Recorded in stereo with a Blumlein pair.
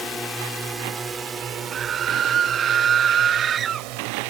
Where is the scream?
25° right.